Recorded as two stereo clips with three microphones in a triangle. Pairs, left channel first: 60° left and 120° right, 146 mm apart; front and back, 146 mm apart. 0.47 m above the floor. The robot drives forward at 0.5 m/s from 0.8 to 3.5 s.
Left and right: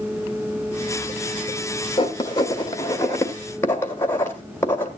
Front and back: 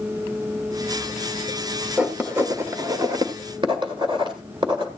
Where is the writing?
100° left, 1.5 m; by 4.9 s 130° left, 1.8 m.